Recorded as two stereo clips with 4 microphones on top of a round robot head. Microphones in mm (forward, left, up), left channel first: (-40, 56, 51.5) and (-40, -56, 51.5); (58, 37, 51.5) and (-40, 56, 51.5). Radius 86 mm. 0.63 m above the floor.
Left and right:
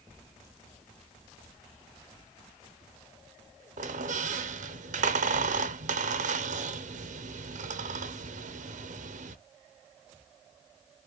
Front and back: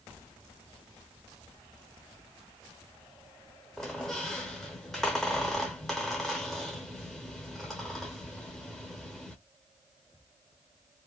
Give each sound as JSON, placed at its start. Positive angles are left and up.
{"t": 3.8, "sound": "a squeak", "azimuth_deg": -100, "distance_m": 0.6}